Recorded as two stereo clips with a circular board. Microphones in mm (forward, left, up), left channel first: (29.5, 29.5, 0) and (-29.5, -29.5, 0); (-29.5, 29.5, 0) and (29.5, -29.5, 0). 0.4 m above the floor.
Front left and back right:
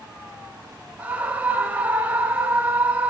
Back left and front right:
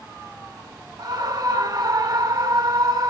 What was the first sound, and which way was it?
A scream, 65° right.